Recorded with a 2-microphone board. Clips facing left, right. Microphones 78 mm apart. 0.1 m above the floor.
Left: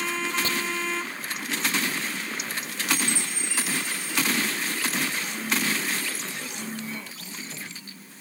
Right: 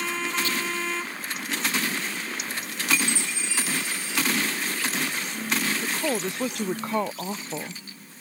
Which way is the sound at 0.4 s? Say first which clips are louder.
Even; 40° left (ahead or behind).